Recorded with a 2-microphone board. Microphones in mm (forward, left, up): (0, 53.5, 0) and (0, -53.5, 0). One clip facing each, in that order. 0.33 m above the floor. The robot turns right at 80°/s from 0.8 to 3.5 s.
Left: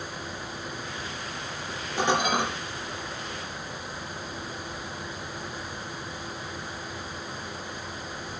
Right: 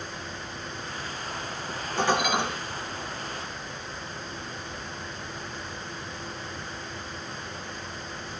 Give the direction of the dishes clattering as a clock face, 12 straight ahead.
12 o'clock.